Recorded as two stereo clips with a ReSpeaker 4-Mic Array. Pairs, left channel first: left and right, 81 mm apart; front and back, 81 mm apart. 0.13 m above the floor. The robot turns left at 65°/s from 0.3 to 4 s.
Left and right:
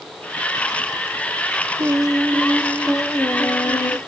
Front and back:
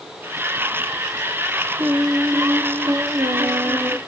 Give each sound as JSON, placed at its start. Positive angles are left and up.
{"t": 1.8, "sound": "singing", "azimuth_deg": -110, "distance_m": 0.9}